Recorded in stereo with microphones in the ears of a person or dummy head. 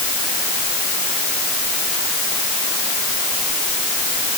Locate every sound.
Only background noise.